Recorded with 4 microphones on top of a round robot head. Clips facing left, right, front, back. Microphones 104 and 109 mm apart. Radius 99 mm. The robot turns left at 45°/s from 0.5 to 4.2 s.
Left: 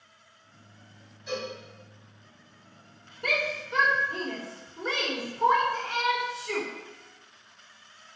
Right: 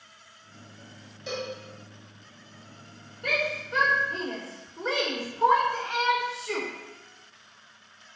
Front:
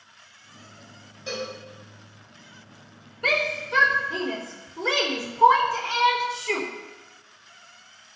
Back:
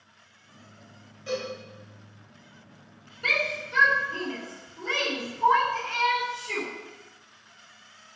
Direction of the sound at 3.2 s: 45° left.